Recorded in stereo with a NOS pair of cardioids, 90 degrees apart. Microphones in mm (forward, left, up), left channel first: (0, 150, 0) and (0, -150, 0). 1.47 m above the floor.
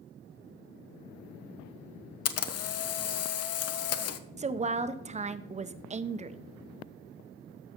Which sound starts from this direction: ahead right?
A woman speaking, at 4.4 s.